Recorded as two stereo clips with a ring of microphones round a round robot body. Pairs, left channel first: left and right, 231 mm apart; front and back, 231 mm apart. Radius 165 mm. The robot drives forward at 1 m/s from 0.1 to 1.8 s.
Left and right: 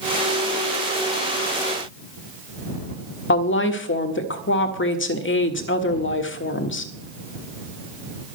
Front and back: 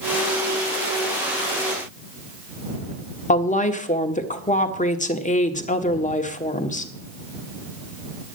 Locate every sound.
3.3 s a woman speaking: 55° left, 1.6 m